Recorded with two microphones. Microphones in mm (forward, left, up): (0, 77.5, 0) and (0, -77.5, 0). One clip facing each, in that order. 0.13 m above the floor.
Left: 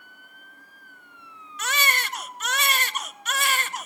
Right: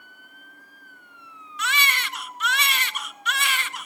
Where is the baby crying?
45° left (ahead or behind), 0.6 m.